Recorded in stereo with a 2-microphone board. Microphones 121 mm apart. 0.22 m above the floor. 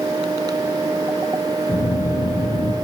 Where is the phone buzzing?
80° left, 1.3 m.